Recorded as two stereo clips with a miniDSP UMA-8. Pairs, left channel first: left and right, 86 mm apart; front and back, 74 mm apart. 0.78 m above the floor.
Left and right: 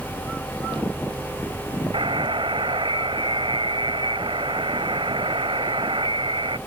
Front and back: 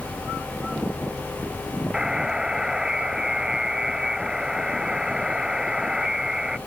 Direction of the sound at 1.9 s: 100° right.